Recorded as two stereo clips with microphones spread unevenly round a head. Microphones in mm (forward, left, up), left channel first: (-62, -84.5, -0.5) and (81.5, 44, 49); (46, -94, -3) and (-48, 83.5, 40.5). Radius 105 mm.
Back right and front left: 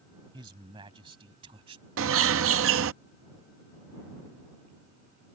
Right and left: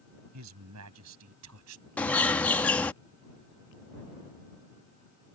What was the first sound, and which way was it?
A man speaking, 110° left.